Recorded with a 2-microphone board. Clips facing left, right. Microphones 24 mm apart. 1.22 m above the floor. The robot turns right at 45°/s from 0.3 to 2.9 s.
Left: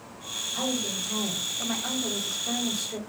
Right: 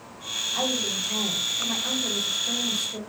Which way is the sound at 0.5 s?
35° right.